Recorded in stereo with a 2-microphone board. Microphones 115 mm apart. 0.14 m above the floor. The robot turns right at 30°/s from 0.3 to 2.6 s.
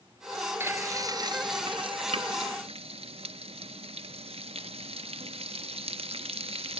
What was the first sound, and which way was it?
Frying, 20° right (ahead or behind).